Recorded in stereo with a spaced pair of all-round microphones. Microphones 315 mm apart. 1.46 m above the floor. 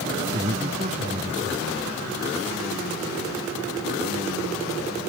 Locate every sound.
0.3 s a man speaking: 25° right (ahead or behind)